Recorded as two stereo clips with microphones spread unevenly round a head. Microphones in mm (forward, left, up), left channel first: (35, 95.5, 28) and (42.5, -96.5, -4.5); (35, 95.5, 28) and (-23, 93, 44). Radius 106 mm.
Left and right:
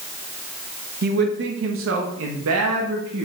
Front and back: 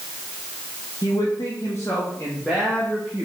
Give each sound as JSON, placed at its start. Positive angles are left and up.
{"t": 1.0, "sound": "a man speaking", "azimuth_deg": -50, "distance_m": 1.5}